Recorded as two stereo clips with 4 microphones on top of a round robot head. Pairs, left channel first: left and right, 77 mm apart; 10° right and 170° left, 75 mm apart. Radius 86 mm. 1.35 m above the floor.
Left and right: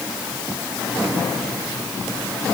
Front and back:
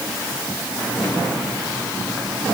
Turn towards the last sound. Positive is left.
No sound to turn to.